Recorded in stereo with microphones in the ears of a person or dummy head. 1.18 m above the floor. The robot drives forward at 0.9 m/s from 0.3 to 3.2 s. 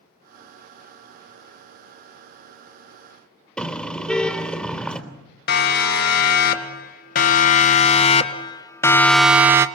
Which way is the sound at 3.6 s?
10° left (ahead or behind).